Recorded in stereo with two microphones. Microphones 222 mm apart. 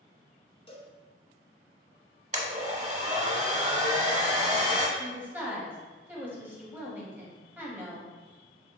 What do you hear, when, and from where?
0.7 s a cowbell: 25° left (ahead or behind), 0.7 m
2.3 s a blender: 30° right (ahead or behind), 0.7 m
5.0 s a woman speaking: 10° right (ahead or behind), 1.1 m